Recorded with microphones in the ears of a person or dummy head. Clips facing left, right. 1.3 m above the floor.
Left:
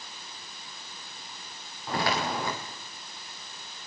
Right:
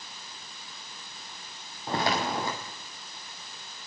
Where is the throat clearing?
No throat clearing in this recording.